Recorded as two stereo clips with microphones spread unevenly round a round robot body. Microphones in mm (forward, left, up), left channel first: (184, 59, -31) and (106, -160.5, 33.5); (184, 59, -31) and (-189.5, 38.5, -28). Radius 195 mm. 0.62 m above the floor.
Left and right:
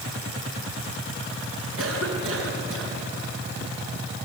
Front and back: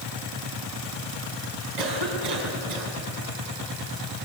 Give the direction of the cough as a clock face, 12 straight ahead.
7 o'clock.